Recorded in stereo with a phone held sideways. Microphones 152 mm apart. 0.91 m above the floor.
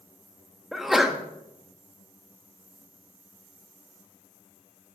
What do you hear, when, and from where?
0.7 s a sneeze: centre (ahead or behind), 1.0 m